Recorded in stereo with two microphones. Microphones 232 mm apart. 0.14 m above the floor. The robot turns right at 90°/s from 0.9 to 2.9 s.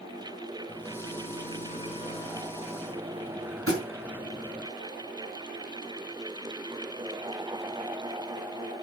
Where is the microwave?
10° left (ahead or behind), 1.2 m; by 4.7 s 10° right (ahead or behind), 1.2 m.